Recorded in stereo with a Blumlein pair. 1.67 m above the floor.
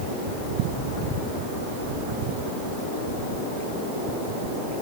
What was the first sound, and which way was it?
Only background noise.